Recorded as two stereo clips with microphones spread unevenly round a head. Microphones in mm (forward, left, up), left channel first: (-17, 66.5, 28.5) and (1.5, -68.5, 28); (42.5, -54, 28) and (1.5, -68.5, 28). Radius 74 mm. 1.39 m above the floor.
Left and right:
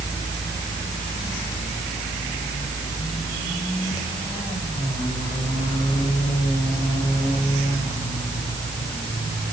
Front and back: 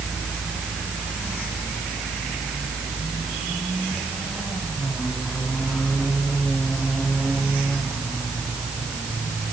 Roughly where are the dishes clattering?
No dishes clattering in this recording.